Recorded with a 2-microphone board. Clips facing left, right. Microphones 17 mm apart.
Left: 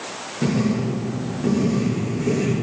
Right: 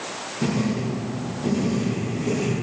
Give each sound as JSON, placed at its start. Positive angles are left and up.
{"t": 0.4, "sound": "writing", "side_deg": 15, "distance_m": 6.5}